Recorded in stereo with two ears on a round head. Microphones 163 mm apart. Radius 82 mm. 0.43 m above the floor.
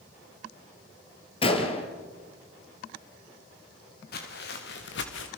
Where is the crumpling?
I don't hear crumpling.